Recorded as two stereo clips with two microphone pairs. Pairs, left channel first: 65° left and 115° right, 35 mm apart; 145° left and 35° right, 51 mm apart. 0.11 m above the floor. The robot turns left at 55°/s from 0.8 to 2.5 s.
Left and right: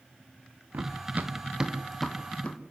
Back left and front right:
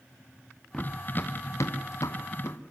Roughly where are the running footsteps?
Behind right.